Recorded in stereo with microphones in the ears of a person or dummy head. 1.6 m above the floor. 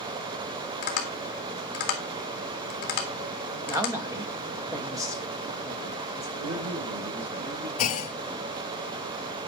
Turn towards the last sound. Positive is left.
turn(degrees=40)  # may be behind; listen again after turning